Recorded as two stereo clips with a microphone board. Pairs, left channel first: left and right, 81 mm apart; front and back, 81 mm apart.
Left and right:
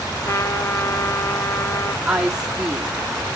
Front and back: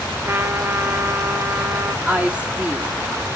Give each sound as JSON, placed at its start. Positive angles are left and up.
{"t": 0.2, "sound": "a trumpet", "azimuth_deg": 130, "distance_m": 0.9}
{"t": 2.0, "sound": "a woman speaking", "azimuth_deg": -150, "distance_m": 0.8}